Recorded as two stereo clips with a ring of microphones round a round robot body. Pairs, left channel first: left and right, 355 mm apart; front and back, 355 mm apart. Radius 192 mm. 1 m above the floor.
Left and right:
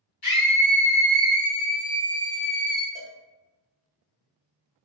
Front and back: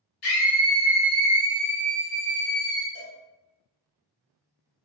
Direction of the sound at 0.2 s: 40° left.